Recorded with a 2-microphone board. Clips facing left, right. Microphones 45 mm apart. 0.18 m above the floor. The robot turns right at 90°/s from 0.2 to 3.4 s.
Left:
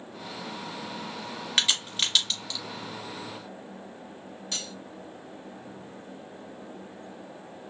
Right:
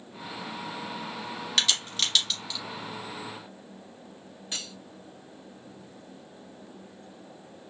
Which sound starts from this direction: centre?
Cutlery clinking, at 4.5 s.